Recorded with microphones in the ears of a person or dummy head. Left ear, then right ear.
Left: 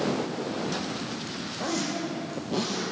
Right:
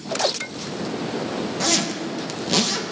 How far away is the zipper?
About 1.4 m.